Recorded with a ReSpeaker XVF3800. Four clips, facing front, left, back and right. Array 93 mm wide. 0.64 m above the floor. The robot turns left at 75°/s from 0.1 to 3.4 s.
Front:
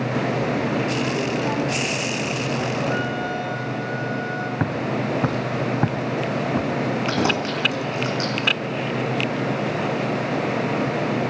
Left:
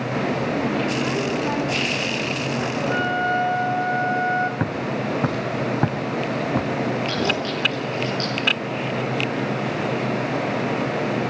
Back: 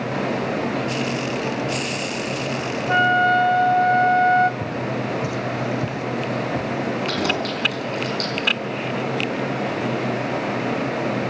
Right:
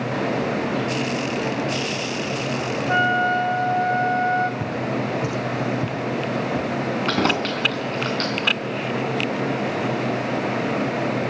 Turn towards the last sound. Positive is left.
turn(degrees=-65)